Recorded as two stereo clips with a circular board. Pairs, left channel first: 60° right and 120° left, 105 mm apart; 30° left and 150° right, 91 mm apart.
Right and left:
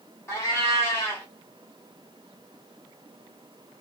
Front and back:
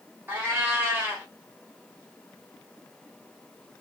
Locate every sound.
0.3 s a cat meowing: 100° right, 1.2 m